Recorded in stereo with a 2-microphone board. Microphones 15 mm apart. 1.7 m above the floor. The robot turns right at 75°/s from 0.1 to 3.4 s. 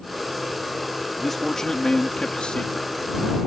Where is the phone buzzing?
I don't hear a phone buzzing.